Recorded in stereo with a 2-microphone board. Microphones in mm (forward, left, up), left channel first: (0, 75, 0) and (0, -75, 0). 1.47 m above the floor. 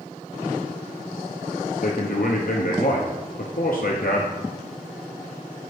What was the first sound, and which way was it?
A man speaking, 70° left (ahead or behind).